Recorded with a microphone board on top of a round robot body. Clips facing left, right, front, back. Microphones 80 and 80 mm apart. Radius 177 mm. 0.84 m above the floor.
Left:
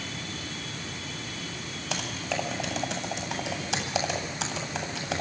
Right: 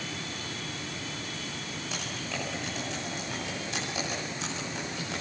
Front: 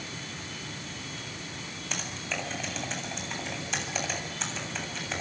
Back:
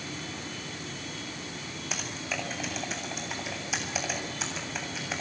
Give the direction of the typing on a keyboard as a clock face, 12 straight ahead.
9 o'clock.